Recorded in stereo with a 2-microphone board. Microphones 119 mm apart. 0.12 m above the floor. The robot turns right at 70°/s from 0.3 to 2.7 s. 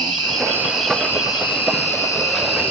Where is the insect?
35° right, 1.2 m; by 2.7 s 130° left, 1.2 m.